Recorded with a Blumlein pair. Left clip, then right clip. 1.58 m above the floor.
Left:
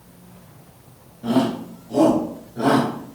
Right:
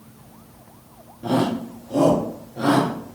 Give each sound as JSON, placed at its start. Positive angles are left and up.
{"t": 1.2, "sound": "a shout", "azimuth_deg": -15, "distance_m": 1.5}